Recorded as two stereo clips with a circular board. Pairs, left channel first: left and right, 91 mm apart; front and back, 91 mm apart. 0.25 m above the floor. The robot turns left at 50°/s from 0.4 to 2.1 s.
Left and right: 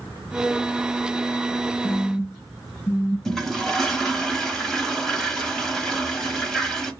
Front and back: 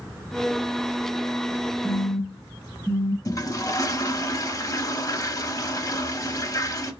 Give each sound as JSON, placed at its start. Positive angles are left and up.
{"t": 1.8, "sound": "a phone buzzing", "azimuth_deg": 120, "distance_m": 0.8}
{"t": 3.2, "sound": "a toilet flushing", "azimuth_deg": 5, "distance_m": 0.8}